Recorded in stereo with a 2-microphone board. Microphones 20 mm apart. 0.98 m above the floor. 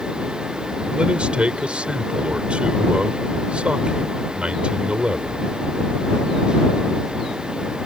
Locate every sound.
0.9 s a man speaking: 80° right